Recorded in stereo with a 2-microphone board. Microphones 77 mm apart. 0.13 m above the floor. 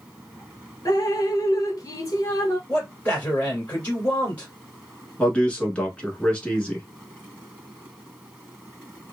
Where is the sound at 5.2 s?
15° left (ahead or behind), 1.2 m.